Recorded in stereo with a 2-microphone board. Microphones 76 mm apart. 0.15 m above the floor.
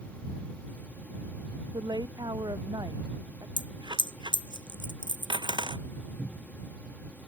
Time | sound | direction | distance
1.7 | a woman speaking | 65° right (ahead or behind) | ?
3.6 | a dropped coin | 90° right | ?
6.2 | a cupboard door | 20° left (ahead or behind) | ?